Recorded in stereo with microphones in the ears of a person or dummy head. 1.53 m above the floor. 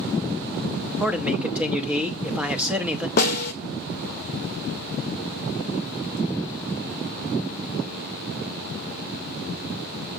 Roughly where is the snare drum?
Left.